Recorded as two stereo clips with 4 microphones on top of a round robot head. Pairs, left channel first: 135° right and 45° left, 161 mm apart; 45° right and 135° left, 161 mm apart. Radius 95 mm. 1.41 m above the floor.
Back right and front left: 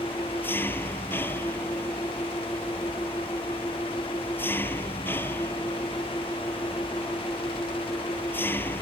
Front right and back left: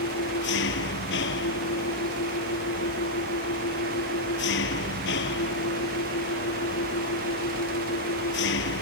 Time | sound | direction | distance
0.0 | an engine running | 55° right | ?